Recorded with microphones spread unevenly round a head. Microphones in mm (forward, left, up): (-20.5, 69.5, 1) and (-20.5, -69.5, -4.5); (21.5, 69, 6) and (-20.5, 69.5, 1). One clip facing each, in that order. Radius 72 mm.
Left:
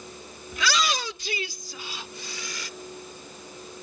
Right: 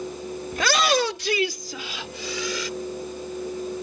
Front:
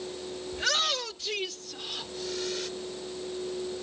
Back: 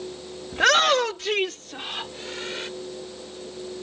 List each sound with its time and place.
0.5 s a shout: 135° right; by 2.7 s 100° right